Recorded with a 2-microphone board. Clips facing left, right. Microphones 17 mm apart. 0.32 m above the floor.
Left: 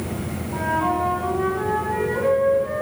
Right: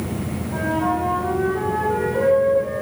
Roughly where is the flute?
Right.